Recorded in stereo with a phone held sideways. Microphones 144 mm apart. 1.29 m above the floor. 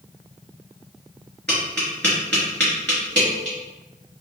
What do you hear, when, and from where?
1.5 s tapping: 5° left (ahead or behind), 1.9 m